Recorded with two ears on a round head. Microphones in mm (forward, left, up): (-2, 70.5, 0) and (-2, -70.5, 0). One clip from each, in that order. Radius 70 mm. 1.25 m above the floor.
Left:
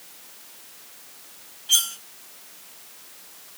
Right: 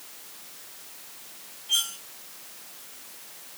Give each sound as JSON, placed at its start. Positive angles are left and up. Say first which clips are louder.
{"t": 1.7, "sound": "cutlery clinking", "louder": "left 4 dB", "side_deg": 70, "distance_m": 1.6}